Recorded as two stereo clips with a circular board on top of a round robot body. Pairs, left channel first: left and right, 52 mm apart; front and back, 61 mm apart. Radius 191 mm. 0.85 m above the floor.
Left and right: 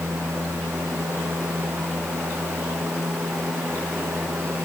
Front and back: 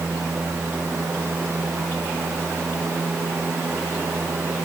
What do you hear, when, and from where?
Only background noise.